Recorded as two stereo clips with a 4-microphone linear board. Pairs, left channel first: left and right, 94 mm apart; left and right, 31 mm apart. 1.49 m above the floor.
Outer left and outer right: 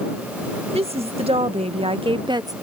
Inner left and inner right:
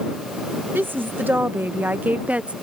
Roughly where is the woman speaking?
Right.